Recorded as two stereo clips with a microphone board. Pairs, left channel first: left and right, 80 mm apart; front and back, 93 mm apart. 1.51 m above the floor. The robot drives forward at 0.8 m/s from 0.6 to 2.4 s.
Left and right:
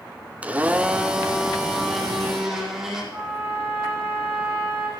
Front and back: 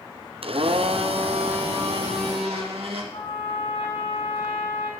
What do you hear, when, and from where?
0.4 s a blender: 165° right, 0.6 m; by 3.0 s 175° right, 2.0 m
3.1 s a trumpet: 15° right, 4 m